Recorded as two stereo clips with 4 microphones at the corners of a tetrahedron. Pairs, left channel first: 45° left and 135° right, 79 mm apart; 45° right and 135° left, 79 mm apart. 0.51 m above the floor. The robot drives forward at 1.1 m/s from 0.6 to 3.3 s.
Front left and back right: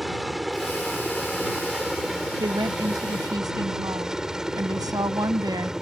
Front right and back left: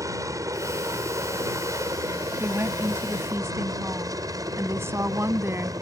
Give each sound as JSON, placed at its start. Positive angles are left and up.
{"t": 0.0, "sound": "a helicopter", "azimuth_deg": 135}
{"t": 2.4, "sound": "a woman speaking", "azimuth_deg": -165}